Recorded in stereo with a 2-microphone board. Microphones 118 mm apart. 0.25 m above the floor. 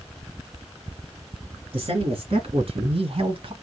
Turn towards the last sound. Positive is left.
turn(degrees=-50)  # may be behind; listen again after turning